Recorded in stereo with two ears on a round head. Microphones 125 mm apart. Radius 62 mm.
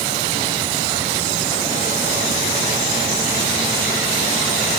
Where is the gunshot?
I don't hear a gunshot.